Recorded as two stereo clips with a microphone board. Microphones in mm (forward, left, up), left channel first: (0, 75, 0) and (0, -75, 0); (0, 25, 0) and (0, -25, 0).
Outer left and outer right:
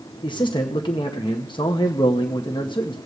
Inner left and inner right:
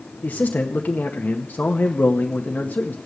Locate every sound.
0.2 s a man speaking: 35° left (ahead or behind), 0.8 m